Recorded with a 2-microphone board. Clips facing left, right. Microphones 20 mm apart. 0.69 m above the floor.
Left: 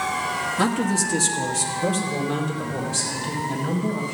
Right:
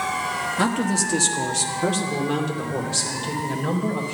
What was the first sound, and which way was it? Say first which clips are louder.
A man speaking: even; 5° right (ahead or behind).